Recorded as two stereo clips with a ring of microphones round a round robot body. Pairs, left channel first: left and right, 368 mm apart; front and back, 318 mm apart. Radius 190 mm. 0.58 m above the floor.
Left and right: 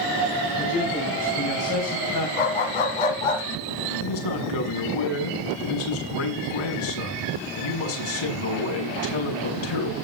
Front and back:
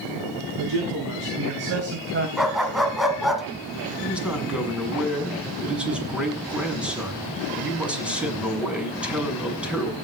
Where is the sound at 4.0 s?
95° left, 6.5 m.